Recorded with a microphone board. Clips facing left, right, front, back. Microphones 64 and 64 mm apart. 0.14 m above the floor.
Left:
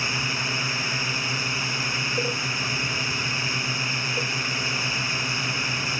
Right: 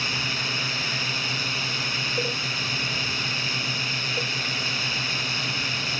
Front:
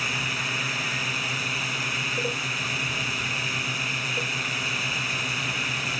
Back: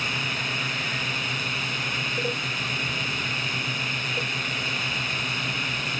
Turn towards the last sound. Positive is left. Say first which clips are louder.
# left 1 dB, even
turn(degrees=80)